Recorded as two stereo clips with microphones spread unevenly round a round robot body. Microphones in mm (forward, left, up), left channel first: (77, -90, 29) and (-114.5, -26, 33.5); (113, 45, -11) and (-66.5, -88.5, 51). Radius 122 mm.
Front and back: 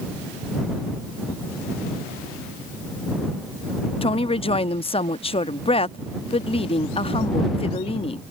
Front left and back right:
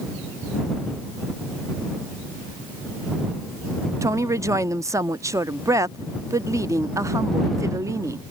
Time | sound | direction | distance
4.0 | a woman speaking | 50° right | ?